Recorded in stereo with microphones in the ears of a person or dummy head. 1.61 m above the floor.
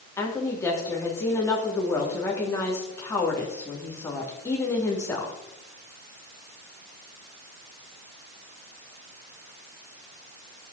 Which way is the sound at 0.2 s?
15° left (ahead or behind).